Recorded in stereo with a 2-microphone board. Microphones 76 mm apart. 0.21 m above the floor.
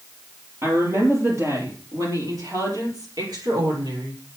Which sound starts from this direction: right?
A woman speaking, at 0.6 s.